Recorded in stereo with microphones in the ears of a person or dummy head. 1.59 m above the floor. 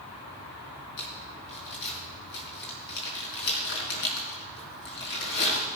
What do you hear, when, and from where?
1.0 s crumpling: 65° left (ahead or behind), 4.5 m